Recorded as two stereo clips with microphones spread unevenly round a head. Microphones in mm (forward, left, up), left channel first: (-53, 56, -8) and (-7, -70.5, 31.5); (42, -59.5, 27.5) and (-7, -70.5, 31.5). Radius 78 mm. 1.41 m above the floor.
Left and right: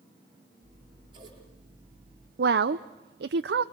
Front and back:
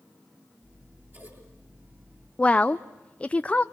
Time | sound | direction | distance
0.6 | scissors | 125° right | 7.5 m
2.4 | a woman speaking | 55° right | 0.5 m